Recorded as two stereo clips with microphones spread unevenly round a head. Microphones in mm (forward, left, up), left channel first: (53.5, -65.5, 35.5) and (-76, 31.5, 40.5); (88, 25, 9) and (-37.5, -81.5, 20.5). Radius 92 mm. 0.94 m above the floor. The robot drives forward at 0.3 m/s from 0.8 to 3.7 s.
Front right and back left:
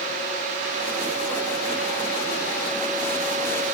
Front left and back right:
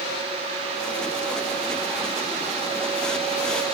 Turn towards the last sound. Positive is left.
No sound to turn to.